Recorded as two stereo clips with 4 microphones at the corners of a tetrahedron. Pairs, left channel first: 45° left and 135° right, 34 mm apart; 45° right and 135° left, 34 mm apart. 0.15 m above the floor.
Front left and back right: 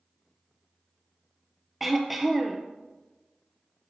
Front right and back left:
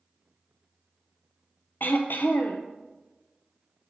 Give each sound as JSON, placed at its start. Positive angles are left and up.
{"t": 1.8, "sound": "throat clearing", "azimuth_deg": -50, "distance_m": 0.8}